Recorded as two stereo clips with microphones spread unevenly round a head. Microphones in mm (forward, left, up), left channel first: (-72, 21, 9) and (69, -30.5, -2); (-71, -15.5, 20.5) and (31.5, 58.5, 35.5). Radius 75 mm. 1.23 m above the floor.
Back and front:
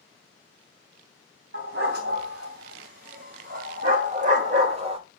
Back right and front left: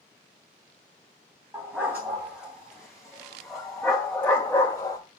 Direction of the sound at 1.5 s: 40° right.